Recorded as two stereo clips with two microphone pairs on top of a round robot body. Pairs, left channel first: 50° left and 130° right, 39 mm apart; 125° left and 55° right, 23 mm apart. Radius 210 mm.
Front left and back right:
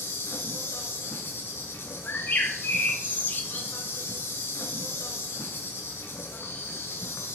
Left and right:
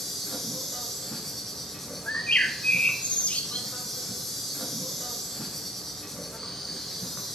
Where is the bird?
90° left, 0.9 m.